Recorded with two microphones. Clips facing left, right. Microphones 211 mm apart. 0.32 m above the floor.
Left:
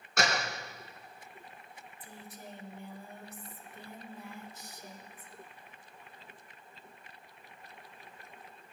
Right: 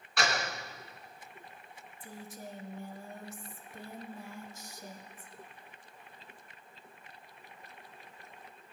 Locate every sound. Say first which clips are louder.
0.2 s a door slam: left 1 dB; 45° left (ahead or behind), 3 m
2.0 s a woman speaking: right 4 dB; 40° right (ahead or behind), 1.4 m